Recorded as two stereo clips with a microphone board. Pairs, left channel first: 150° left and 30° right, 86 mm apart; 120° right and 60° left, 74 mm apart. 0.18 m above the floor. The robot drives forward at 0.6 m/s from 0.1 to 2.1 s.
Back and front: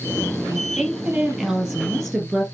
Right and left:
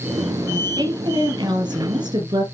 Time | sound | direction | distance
0.5 | a woman speaking | 50° left | 5 m